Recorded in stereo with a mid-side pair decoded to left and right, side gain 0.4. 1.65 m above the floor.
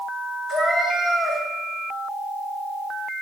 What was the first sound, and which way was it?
A cat meowing, 10° right.